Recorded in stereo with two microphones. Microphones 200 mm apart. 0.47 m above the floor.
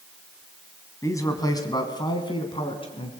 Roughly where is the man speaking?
Centre.